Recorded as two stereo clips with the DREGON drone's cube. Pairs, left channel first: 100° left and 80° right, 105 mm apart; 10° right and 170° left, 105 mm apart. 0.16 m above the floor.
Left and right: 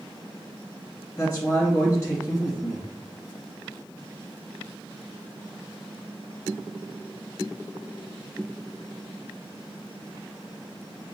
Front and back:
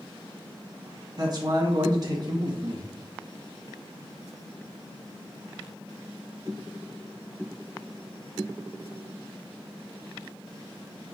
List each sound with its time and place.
1.2 s a man speaking: 155° left, 2.0 m